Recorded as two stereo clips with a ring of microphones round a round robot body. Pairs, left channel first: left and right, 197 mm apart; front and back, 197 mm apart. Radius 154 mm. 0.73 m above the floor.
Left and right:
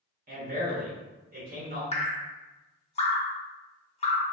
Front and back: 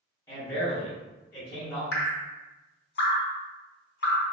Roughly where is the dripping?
Ahead left.